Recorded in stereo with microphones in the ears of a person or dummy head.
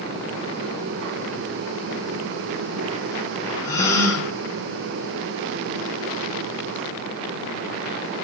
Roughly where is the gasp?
Left.